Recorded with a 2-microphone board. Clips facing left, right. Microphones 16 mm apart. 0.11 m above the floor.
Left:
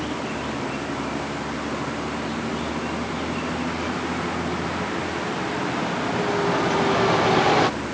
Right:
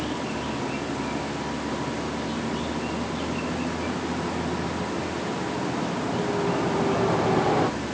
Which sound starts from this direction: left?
A vehicle, at 0.0 s.